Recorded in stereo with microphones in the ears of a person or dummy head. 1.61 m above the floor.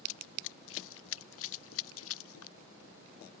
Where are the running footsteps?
75° left (ahead or behind); by 2.6 s 80° left.